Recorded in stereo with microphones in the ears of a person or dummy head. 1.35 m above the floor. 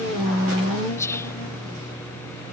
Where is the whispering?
10° left (ahead or behind).